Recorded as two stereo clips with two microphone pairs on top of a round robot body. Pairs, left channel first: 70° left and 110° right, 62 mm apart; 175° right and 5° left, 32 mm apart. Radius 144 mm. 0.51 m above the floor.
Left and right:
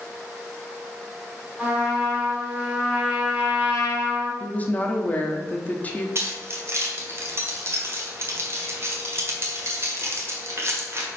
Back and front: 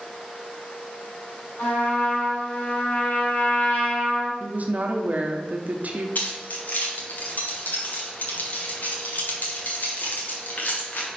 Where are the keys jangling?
150° right, 1.6 m.